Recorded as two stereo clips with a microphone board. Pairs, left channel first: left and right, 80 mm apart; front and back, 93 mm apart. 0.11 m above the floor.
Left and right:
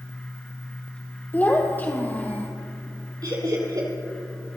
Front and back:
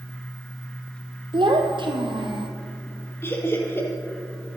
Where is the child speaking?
155° left, 2.0 m.